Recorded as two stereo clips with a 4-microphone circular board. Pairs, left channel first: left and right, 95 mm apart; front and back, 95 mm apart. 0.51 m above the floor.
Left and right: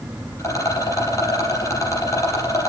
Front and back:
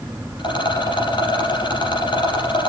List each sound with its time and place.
0.4 s a rattle: 35° left, 5 m